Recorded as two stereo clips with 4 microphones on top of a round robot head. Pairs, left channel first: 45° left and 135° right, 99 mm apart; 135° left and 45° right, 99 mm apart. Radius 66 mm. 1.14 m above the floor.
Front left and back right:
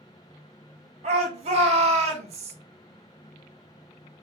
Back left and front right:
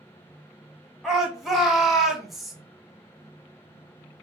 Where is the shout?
135° right, 2 m.